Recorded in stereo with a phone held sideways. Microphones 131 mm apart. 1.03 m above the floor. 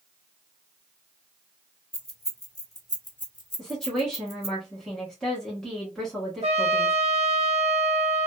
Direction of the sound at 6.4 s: 55° right (ahead or behind).